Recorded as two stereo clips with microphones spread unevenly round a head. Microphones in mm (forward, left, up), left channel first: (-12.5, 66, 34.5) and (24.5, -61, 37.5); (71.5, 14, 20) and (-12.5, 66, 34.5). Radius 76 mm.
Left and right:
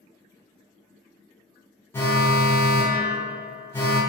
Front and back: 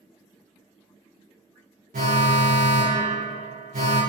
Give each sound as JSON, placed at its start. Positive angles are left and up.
{"t": 1.9, "sound": "an alarm", "azimuth_deg": 180, "distance_m": 0.5}